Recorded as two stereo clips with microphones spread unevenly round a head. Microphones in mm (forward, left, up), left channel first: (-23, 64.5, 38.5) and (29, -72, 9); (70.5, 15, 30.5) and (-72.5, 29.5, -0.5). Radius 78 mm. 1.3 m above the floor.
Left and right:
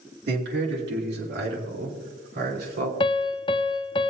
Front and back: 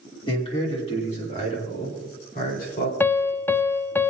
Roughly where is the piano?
Ahead left.